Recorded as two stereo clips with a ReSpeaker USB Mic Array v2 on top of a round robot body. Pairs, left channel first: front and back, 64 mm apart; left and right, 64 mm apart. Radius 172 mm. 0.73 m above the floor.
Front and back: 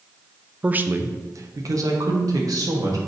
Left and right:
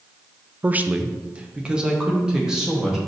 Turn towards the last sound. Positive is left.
turn(degrees=-175)